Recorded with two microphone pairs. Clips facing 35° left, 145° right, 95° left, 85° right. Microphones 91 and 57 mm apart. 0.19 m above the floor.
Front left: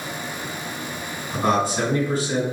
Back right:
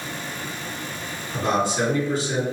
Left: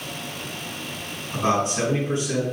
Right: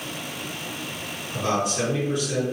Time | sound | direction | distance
1.3 | a man speaking | 55° left | 2.0 m